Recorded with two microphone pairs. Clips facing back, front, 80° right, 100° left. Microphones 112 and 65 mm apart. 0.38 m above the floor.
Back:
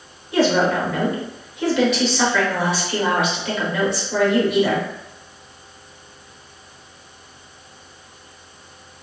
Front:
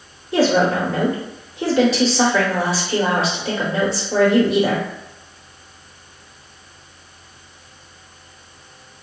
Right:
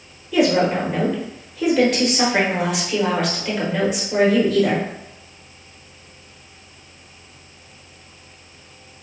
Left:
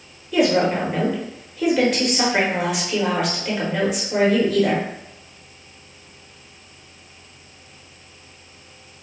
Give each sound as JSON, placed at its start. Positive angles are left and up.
{"t": 0.3, "sound": "a woman speaking", "azimuth_deg": 15, "distance_m": 0.9}